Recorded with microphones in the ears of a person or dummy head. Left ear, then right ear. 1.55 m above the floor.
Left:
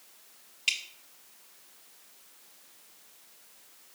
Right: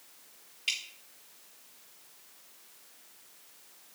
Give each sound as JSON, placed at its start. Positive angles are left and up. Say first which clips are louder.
{"t": 0.7, "sound": "dripping", "louder": "left 3 dB", "side_deg": 30, "distance_m": 1.4}